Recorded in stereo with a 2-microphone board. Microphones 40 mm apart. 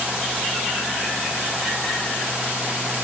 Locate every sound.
Only background noise.